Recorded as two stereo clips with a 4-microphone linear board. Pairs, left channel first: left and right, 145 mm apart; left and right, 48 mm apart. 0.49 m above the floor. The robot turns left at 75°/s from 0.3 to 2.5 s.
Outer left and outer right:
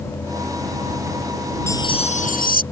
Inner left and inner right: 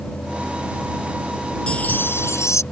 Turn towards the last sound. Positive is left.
turn(degrees=100)